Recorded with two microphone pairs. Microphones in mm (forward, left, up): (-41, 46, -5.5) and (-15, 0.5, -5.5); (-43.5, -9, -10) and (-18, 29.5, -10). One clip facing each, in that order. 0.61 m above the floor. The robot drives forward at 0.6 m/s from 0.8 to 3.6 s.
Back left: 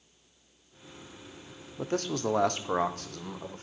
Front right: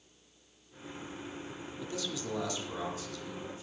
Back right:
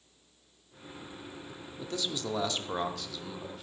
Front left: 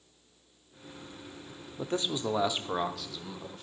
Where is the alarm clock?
No alarm clock in this recording.